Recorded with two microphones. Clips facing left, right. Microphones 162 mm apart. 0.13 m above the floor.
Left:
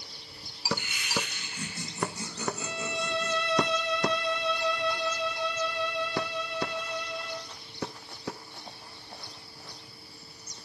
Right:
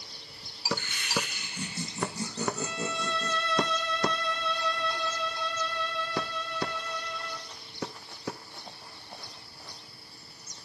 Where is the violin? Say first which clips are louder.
Right 1 dB; 15° left (ahead or behind), 0.8 m.